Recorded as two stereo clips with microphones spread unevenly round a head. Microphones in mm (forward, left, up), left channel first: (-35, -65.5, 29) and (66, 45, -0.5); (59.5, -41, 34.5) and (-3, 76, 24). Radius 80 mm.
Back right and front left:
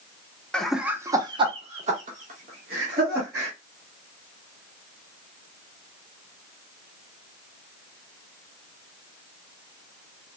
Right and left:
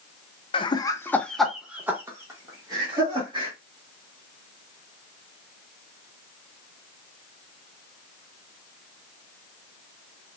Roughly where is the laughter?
Ahead right.